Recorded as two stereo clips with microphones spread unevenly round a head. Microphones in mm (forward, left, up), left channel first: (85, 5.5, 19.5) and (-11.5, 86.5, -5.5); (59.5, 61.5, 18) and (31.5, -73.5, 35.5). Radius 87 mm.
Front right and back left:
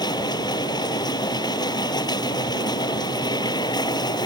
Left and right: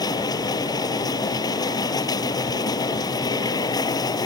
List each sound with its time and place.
0.0 s a machine running: 15° left